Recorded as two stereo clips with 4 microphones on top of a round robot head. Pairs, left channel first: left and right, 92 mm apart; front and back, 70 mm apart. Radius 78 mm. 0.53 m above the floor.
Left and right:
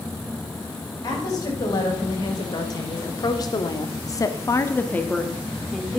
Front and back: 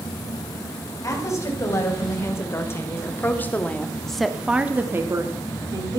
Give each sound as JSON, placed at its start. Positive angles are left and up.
{"t": 1.0, "sound": "a woman speaking", "azimuth_deg": 40, "distance_m": 4.0}